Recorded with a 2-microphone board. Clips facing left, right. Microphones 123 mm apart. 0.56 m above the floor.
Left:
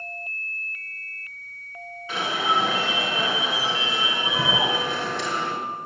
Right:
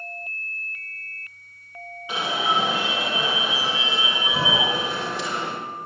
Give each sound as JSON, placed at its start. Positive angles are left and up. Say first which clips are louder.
{"t": 2.1, "sound": "an alarm", "louder": "even", "side_deg": -15, "distance_m": 5.0}